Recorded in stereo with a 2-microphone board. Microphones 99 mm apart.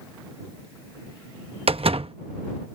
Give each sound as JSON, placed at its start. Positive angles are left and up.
{"t": 1.7, "sound": "a door slam", "side_deg": -75}